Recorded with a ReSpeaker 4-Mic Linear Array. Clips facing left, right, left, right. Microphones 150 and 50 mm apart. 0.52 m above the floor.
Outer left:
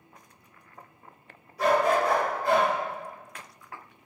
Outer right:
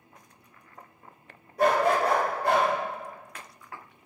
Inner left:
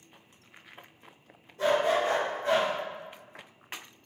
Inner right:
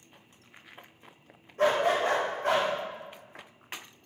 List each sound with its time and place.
1.6 s a dog barking: 50° right (ahead or behind), 0.7 m; by 2.7 s 70° right (ahead or behind), 1.2 m